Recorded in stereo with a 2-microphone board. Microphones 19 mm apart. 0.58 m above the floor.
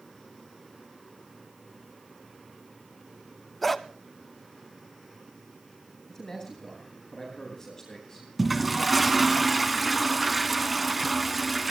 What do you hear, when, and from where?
3.6 s a dog barking: 10° left (ahead or behind), 1.1 m
6.1 s a man speaking: 25° left (ahead or behind), 9 m
8.4 s a toilet flushing: 5° right (ahead or behind), 1.2 m